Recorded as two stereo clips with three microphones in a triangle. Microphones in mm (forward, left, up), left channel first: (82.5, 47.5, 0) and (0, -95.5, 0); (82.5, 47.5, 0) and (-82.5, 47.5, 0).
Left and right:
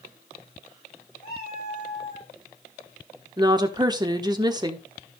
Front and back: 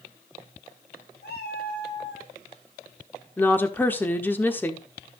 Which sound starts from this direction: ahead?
A cat meowing, at 1.2 s.